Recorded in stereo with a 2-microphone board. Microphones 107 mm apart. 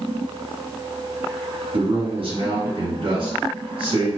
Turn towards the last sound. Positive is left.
turn(degrees=-55)  # may be behind; listen again after turning